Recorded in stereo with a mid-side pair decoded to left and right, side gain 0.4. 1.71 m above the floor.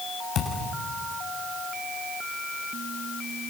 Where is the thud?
65° left, 5.5 m.